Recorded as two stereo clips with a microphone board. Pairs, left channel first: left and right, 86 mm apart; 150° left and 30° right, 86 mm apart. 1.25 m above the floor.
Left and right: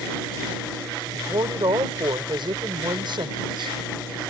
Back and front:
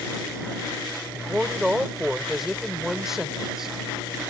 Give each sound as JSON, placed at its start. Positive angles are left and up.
{"t": 1.1, "sound": "a woman speaking", "azimuth_deg": -115}